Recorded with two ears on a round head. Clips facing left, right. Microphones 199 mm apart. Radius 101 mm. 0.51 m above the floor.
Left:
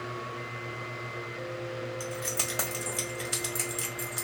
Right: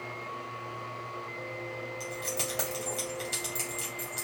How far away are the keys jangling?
About 2 m.